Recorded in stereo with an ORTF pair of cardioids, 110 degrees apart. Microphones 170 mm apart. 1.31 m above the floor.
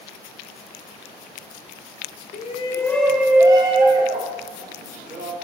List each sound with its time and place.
2.3 s a shout: 45° left, 0.6 m; by 5.3 s 50° right, 1.7 m